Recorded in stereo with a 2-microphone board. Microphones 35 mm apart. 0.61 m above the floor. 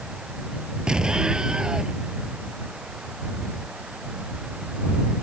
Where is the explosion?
25° right (ahead or behind).